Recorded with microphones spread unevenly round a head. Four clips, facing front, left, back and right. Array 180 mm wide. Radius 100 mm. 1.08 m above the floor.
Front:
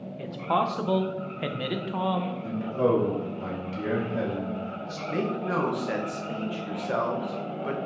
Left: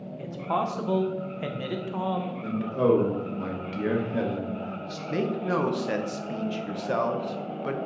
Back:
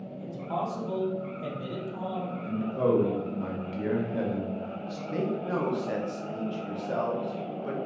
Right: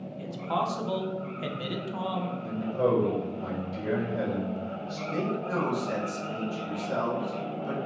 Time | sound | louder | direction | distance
0.2 | a man speaking | left 2 dB, front 6 dB | 20° left | 0.6 m
2.4 | a man speaking | left 3 dB, front 1 dB | 80° left | 1.2 m
5.1 | a man speaking | left 4 dB, front 2 dB | 50° left | 0.8 m